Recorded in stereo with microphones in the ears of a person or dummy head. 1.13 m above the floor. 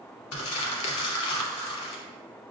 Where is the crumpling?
75° left (ahead or behind), 0.9 m.